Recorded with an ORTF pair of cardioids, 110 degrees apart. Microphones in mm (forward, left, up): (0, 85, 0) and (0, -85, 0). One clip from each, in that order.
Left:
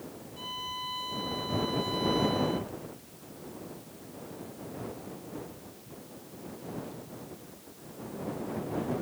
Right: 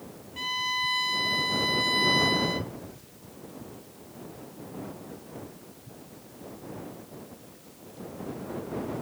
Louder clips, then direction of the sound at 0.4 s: Right 9 dB; 70° right.